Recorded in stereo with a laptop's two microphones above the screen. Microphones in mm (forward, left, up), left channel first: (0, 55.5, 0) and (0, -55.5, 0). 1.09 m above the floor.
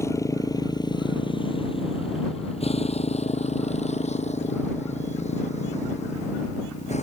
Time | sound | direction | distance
0.0 | a motorcycle | 25° left (ahead or behind) | ?